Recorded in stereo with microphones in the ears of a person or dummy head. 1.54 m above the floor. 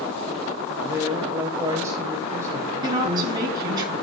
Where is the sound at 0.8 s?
15° right (ahead or behind), 1.8 m.